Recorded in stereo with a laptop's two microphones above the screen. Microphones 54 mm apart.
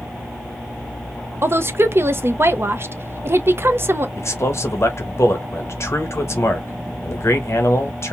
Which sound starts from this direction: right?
A woman speaking, at 1.4 s.